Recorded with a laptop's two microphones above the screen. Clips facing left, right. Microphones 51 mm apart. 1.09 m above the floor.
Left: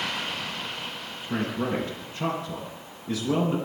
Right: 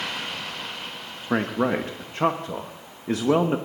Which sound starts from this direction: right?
A man speaking, at 1.3 s.